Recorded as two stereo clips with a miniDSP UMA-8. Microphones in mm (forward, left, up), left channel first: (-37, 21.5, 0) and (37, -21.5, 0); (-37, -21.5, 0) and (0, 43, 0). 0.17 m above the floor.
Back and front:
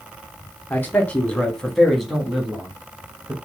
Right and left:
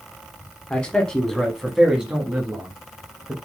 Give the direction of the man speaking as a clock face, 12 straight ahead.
6 o'clock.